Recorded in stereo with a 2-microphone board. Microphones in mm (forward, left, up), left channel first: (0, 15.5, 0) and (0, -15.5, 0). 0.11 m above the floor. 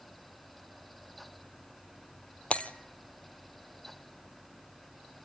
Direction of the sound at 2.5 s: 45° left (ahead or behind).